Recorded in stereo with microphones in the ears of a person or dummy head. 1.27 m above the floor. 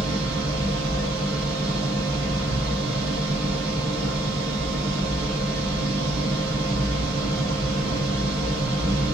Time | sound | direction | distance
0.0 | a machine running | 60° right (ahead or behind) | 1.2 m